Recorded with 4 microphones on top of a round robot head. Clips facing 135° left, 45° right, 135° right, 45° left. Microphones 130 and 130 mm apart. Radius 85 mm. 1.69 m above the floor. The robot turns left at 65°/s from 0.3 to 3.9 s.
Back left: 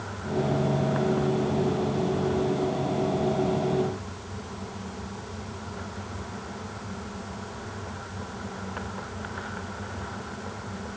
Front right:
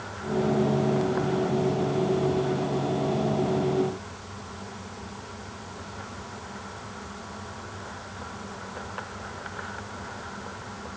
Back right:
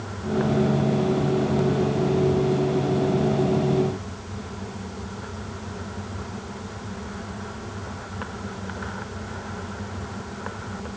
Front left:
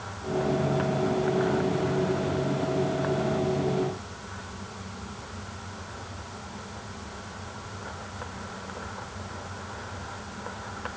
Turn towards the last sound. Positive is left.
No sound to turn to.